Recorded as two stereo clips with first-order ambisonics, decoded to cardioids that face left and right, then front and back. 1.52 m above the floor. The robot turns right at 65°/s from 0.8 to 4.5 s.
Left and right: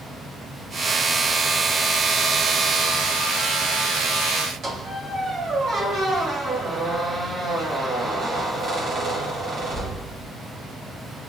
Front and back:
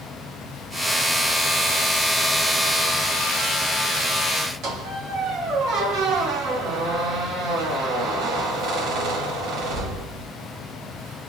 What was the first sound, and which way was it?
A squeak, 145° right.